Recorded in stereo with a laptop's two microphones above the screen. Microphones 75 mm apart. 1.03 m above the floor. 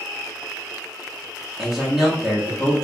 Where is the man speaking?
10° right (ahead or behind), 0.8 m.